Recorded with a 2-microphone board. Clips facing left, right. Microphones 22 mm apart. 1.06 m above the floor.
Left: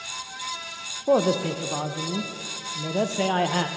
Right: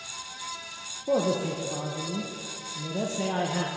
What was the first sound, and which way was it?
A woman speaking, 55° left (ahead or behind).